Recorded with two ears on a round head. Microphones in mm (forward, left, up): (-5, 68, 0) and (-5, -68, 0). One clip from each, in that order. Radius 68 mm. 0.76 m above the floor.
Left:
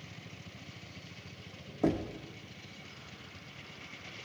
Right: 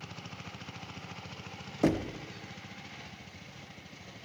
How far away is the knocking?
About 0.8 m.